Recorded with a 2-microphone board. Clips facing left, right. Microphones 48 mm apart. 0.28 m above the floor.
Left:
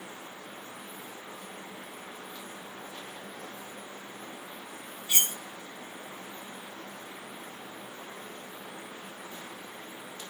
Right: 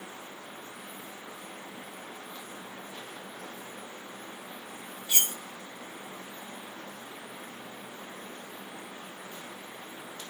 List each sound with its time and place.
5.1 s cutlery clinking: 25° left (ahead or behind), 1.6 m